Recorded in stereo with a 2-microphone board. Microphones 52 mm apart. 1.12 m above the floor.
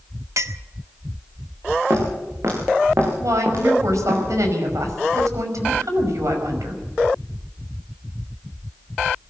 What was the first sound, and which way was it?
A clink, 80° right.